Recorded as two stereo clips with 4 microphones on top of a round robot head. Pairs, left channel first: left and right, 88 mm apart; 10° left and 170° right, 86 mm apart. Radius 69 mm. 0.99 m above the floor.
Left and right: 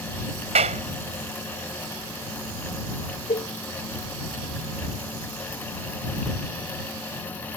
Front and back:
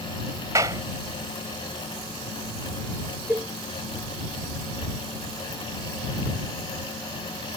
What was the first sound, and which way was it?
A clap, 105° right.